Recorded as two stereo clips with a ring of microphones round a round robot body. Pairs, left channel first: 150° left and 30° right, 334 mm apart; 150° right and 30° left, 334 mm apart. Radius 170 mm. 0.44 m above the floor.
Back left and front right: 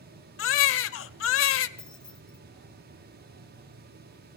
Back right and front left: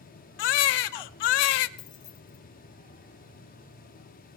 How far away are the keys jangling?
About 1.7 m.